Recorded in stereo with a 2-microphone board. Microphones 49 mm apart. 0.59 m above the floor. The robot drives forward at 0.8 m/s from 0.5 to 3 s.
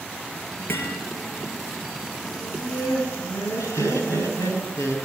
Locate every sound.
0.7 s hammering: 45° left (ahead or behind), 6 m
2.4 s laughter: 75° left (ahead or behind), 9 m; by 5.0 s 80° left, 9 m